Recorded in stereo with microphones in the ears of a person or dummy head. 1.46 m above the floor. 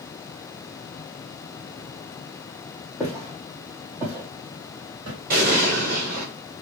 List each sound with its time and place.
3.0 s footsteps: centre (ahead or behind), 1.7 m; by 5.2 s 35° right (ahead or behind), 1.7 m
5.3 s an explosion: 40° right (ahead or behind), 1.0 m